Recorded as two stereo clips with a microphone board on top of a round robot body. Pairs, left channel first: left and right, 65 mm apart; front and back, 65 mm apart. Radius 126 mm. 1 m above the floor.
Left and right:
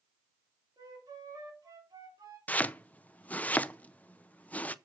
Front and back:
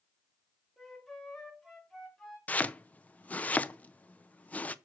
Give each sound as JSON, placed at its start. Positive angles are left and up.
{"t": 0.8, "sound": "a flute", "azimuth_deg": -85, "distance_m": 3.5}
{"t": 2.5, "sound": "chopping", "azimuth_deg": 45, "distance_m": 0.7}